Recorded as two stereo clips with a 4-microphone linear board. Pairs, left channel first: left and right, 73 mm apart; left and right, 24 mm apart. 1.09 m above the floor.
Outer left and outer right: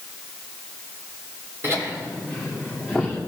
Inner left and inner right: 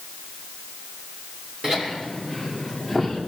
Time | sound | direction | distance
1.6 | laughter | 35° right (ahead or behind) | 3 m